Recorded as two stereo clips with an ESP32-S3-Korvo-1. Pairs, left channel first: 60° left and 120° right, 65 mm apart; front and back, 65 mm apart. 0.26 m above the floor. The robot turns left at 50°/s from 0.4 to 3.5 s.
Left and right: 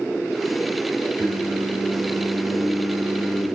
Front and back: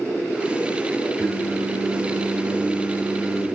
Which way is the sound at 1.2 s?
125° right.